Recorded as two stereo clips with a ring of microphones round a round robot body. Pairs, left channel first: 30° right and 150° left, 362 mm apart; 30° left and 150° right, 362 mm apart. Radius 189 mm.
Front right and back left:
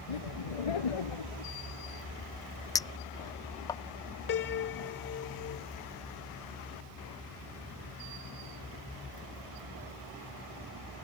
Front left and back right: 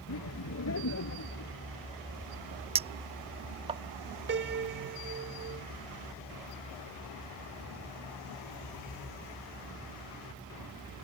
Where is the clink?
95° right.